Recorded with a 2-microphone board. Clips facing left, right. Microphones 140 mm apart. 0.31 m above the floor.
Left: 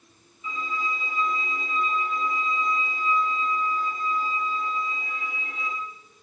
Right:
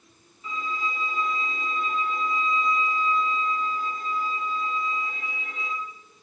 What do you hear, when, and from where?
0.4 s a violin: 80° right, 0.8 m